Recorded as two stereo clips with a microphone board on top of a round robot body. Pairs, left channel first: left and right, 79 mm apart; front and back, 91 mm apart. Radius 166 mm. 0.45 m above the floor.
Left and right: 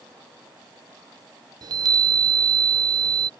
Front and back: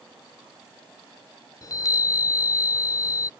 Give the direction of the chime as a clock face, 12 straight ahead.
2 o'clock.